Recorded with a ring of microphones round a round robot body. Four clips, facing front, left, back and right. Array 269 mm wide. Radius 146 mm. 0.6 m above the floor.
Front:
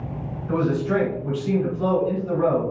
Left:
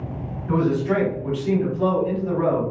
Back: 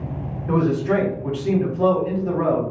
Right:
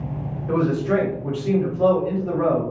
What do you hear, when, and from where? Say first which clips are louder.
0.5 s a man speaking: even, back 2 dB; 175° left, 2 m